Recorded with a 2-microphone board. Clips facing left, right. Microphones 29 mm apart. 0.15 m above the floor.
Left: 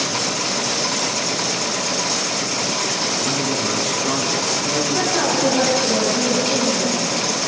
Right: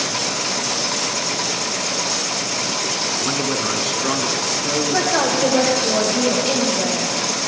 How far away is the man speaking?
About 1.4 m.